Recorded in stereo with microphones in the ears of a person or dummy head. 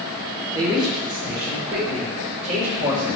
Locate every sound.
0.5 s a man speaking: 20° right (ahead or behind), 1.5 m; by 3.1 s 40° right (ahead or behind), 2.5 m